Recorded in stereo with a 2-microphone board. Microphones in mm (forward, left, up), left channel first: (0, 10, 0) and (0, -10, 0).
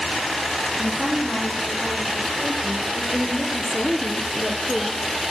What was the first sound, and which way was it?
A woman speaking, 50° right (ahead or behind).